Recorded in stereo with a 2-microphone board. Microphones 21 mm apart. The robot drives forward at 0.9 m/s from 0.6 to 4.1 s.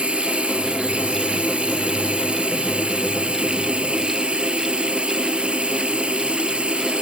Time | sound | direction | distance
0.0 | running water | 85° right | ?